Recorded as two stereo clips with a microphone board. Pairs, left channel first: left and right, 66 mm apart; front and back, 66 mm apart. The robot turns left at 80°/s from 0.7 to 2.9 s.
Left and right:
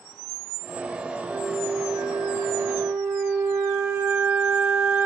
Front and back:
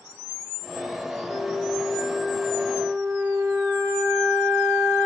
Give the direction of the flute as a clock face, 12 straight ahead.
1 o'clock.